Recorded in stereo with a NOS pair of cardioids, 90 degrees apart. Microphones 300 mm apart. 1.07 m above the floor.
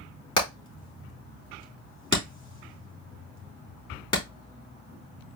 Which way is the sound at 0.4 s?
15° left.